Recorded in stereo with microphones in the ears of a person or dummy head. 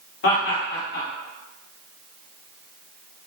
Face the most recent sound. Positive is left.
turn(degrees=70)  # may be behind; listen again after turning